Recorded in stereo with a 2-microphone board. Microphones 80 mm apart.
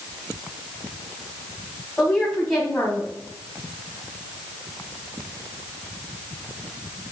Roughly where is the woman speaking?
Centre.